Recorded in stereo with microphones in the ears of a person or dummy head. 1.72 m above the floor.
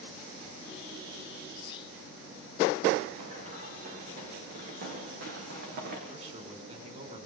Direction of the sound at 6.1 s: 40° right (ahead or behind).